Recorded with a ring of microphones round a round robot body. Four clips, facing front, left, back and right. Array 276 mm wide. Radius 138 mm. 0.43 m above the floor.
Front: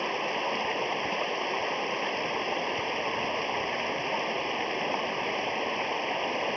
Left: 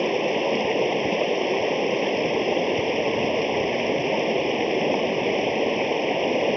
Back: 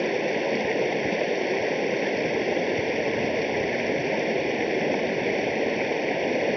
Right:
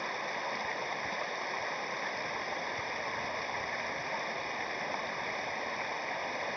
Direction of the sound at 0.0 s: 125° left.